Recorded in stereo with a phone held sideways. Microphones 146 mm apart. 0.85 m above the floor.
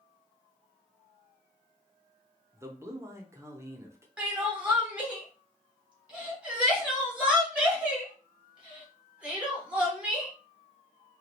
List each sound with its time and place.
2.5 s a man speaking: 20° right (ahead or behind), 0.8 m
4.2 s crying: 10° right (ahead or behind), 1.3 m